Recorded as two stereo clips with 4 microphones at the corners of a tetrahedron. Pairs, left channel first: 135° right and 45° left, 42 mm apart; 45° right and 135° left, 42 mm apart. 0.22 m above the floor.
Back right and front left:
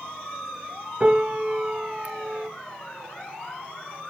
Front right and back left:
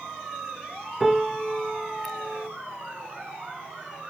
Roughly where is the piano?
Ahead left.